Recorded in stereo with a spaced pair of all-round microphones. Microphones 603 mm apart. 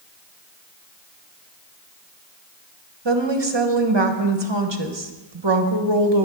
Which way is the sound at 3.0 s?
40° right (ahead or behind).